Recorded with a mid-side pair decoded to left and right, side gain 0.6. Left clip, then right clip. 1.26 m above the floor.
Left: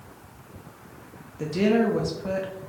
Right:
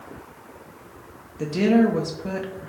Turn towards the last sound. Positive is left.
turn(degrees=-10)